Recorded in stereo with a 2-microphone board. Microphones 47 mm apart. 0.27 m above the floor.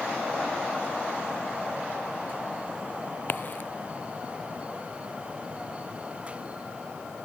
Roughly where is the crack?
Left.